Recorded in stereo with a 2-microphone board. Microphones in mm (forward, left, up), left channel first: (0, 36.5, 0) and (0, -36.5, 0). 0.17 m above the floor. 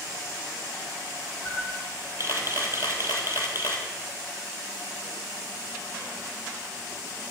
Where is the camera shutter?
35° right (ahead or behind), 1.5 m.